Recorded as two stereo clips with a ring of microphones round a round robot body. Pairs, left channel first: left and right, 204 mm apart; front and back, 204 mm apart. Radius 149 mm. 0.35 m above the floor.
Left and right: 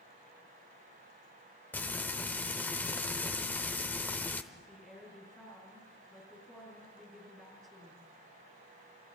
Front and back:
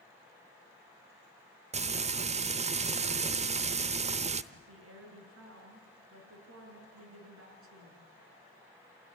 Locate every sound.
1.7 s frying: 165° left, 0.8 m
4.5 s a woman speaking: 175° left, 5.5 m